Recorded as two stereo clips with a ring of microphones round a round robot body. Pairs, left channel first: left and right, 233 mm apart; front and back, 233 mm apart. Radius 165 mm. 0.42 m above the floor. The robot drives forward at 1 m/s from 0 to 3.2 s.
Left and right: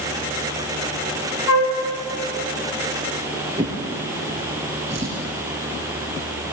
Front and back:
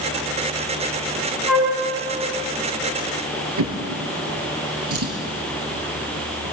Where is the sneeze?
I don't hear a sneeze.